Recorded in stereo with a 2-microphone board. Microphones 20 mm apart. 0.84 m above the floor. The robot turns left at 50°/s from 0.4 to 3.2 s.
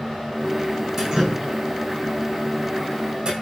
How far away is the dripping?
About 5.5 m.